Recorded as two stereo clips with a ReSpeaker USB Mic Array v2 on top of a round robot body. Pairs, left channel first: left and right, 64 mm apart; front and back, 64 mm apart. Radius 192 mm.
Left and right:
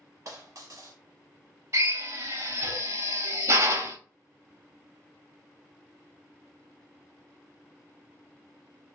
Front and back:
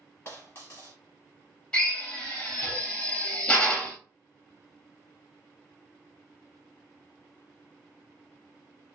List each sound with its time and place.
0.2 s a dropped coin: 55° right, 1.2 m
1.7 s a drill: 75° right, 2 m